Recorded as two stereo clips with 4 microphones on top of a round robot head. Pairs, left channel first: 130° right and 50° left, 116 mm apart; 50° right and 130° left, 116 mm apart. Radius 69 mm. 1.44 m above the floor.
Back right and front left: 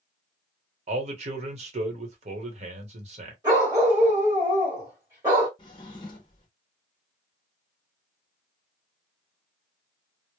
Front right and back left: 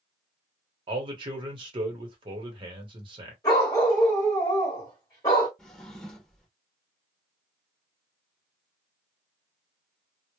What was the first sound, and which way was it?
A man speaking, 80° left.